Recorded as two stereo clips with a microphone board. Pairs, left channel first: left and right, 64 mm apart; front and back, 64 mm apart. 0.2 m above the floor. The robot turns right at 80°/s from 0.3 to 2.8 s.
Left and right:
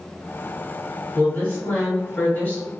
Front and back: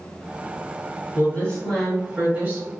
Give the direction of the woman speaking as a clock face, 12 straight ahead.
11 o'clock.